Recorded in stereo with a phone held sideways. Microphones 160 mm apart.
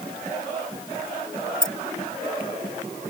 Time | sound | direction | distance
1.6 | keys jangling | 60° right (ahead or behind) | ?